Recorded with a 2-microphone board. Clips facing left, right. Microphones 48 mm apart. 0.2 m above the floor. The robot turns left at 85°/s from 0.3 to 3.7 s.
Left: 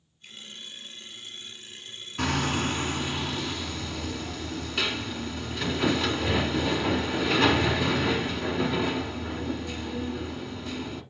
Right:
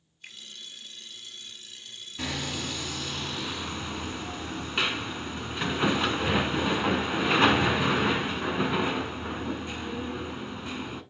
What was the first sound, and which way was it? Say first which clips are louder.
A finger snap: right 1 dB; 60° right (ahead or behind).